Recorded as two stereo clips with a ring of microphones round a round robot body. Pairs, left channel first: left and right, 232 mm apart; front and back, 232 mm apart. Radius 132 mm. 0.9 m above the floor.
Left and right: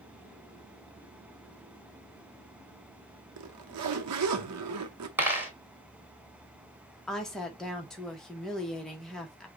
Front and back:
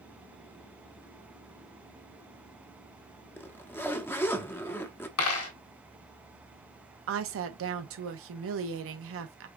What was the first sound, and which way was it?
A zipper, 80° right.